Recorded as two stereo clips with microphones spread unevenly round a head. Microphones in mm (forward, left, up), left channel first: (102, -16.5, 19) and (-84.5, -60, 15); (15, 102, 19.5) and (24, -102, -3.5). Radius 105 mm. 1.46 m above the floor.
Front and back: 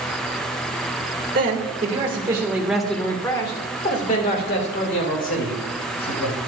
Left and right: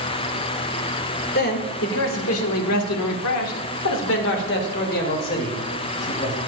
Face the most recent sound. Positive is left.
turn(degrees=40)